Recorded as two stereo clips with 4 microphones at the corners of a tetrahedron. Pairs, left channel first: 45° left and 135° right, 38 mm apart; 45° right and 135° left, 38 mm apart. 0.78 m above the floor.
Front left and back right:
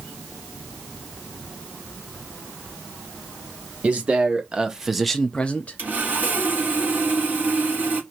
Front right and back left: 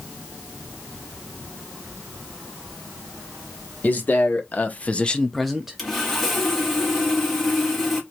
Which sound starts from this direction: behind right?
Sawing, at 5.8 s.